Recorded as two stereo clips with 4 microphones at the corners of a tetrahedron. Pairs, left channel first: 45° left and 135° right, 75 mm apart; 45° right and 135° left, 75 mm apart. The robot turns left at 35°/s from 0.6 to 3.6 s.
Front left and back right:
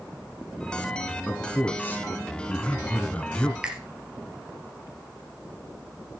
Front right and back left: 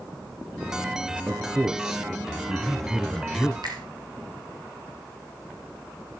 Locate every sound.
1.3 s a man speaking: 85° left, 1.1 m; by 3.5 s 5° left, 1.1 m
3.6 s a finger snap: 150° left, 3 m